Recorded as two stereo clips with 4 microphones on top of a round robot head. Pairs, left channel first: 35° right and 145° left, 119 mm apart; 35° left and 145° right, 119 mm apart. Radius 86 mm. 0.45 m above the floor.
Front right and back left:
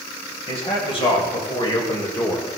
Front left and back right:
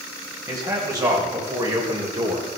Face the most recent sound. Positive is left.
turn(degrees=-115)